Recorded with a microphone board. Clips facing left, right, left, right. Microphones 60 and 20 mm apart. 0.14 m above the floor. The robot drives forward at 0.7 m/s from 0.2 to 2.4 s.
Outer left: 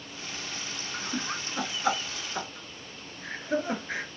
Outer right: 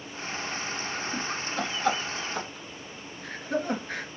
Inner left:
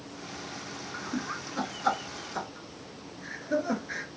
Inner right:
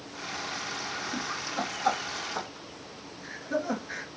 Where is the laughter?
10° left (ahead or behind), 1.1 m; by 4.1 s 5° left (ahead or behind), 1.7 m.